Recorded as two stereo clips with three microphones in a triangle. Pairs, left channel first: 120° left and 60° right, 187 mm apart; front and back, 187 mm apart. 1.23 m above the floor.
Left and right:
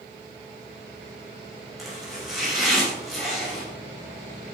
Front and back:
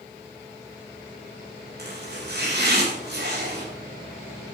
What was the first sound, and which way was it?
Chopping, 150° right.